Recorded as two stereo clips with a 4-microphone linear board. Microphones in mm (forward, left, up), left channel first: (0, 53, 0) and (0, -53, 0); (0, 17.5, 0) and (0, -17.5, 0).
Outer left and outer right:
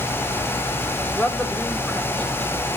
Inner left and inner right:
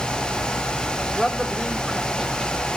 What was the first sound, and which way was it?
A woman speaking, 15° left (ahead or behind).